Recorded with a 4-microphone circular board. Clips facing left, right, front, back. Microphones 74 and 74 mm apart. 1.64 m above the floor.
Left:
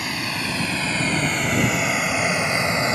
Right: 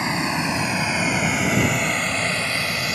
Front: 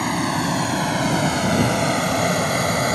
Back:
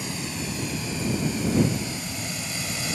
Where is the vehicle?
30° right; by 3.0 s 30° left.